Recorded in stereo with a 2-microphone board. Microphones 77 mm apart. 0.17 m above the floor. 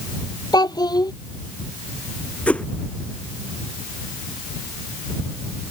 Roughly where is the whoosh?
Centre.